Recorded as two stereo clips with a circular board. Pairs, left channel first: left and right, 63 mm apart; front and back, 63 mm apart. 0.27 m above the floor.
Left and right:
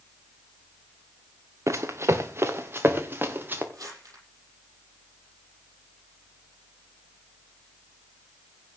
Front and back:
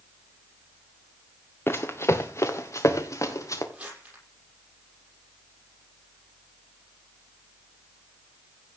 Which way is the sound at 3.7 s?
115° right.